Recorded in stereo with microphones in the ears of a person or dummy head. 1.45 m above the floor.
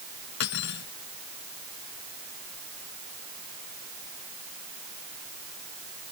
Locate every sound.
0.4 s cutlery clinking: 60° left (ahead or behind)